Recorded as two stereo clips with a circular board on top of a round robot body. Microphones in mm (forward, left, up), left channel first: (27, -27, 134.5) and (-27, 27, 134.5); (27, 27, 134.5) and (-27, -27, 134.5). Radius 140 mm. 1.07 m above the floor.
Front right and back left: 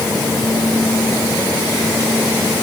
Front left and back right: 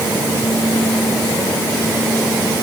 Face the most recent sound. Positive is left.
No sound to turn to.